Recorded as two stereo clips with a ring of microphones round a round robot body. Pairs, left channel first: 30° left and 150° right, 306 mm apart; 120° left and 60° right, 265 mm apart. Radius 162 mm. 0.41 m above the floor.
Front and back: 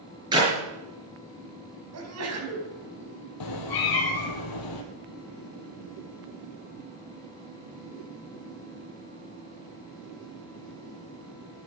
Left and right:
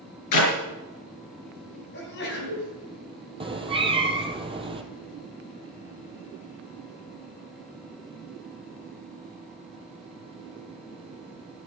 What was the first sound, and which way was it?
A clap, 135° left.